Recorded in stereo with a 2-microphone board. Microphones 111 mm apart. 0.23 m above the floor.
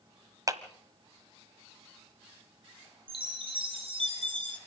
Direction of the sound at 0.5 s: 30° right (ahead or behind).